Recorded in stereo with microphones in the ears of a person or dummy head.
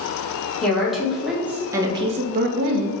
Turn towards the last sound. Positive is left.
turn(degrees=-85)